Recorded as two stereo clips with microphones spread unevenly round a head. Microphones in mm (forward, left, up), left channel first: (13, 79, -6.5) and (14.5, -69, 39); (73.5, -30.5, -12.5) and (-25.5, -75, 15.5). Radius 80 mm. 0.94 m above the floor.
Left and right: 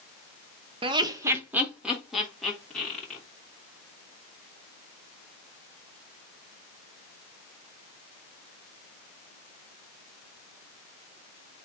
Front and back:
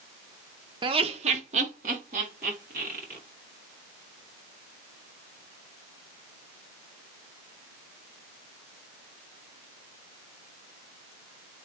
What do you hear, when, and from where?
0.8 s laughter: 145° right, 0.8 m; by 3.2 s 170° left, 3 m